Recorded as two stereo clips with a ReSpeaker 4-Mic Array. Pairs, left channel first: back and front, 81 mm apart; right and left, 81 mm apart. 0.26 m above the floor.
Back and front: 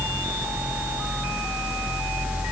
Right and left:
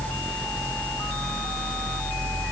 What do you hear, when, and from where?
Only background noise.